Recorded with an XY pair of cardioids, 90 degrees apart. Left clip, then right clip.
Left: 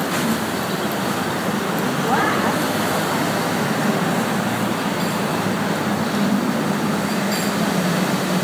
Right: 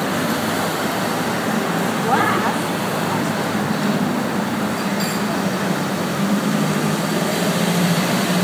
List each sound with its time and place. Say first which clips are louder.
2.0 s a woman speaking: right 1 dB; 25° right, 5.5 m